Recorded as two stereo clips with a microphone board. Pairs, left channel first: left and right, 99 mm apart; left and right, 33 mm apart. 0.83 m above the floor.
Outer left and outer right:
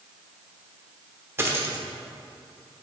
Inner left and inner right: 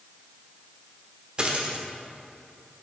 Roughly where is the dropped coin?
Right.